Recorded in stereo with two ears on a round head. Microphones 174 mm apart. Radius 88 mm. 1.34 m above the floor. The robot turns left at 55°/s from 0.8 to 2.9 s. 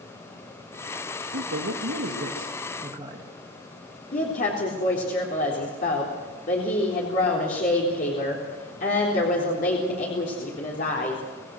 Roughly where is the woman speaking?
Left.